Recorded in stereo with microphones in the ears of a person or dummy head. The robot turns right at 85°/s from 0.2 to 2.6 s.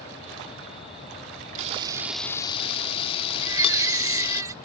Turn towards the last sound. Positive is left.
turn(degrees=-20)  # may be behind; listen again after turning